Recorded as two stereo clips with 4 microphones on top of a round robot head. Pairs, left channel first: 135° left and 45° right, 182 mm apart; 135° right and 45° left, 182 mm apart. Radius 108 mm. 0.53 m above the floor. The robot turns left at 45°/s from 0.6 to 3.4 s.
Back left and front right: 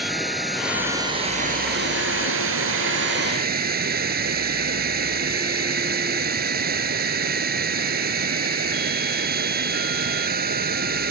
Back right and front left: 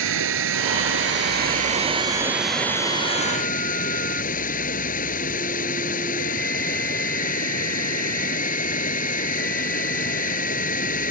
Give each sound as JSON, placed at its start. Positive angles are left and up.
{"t": 0.0, "sound": "running water", "azimuth_deg": 40}